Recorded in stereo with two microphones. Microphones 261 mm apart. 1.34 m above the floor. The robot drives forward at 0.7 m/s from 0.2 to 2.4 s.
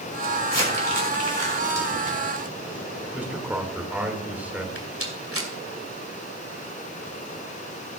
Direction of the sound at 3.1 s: 5° right (ahead or behind).